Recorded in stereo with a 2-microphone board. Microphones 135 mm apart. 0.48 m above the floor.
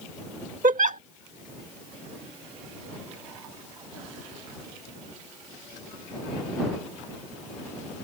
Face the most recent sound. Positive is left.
turn(degrees=-70)  # may be behind; listen again after turning